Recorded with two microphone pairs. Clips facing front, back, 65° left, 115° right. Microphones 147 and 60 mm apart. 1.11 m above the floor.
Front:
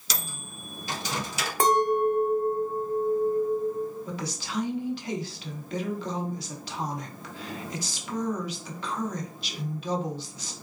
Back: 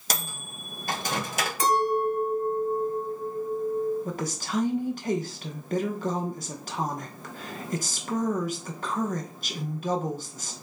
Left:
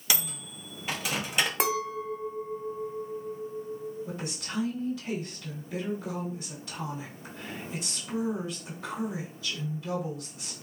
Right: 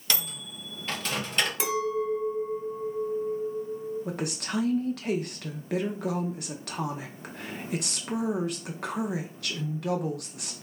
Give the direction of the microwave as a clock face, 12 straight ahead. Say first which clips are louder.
Back 4 dB, even; 7 o'clock.